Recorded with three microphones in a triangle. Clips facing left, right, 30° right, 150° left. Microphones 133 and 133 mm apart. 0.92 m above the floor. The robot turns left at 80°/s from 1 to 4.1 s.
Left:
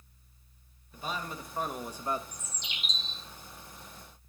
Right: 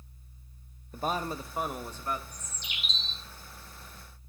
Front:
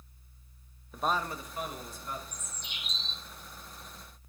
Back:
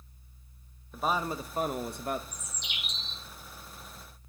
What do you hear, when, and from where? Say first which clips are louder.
0.9 s a man speaking: right 6 dB, back 1 dB; 120° right, 0.7 m; by 2.2 s 145° left, 0.7 m
2.3 s a bird: even, back 1 dB; 175° right, 0.7 m; by 3.2 s 110° left, 0.7 m